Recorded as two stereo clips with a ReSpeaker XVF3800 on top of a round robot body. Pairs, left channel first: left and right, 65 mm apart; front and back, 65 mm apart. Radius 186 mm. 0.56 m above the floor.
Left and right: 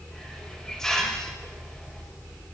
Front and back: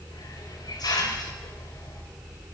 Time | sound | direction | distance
0.1 | a hiss | 5° left | 3.5 m